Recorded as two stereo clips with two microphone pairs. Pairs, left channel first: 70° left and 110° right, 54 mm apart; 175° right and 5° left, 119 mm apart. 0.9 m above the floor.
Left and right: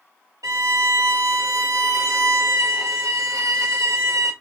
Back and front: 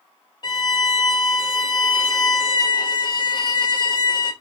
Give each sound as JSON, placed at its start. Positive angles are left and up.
{"t": 0.4, "sound": "a violin", "azimuth_deg": -120, "distance_m": 0.8}